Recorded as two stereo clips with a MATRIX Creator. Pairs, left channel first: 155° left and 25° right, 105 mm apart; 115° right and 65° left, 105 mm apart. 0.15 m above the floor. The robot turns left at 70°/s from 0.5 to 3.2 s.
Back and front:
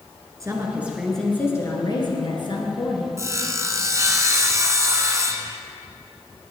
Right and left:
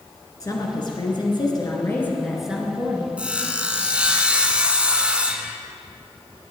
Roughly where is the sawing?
Ahead.